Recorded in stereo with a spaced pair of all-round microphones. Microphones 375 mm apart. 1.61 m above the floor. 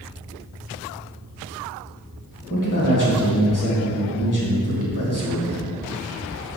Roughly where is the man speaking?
Left.